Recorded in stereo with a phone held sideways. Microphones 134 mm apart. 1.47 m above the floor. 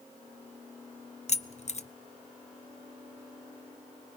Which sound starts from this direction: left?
Keys jangling, at 1.3 s.